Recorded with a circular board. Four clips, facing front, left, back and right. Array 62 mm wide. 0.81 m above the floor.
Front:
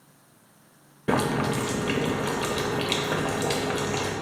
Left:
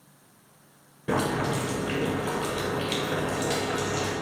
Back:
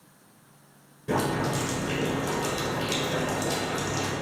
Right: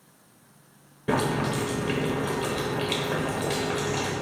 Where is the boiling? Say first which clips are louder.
Right 1 dB, front 2 dB; 15° right, 0.6 m.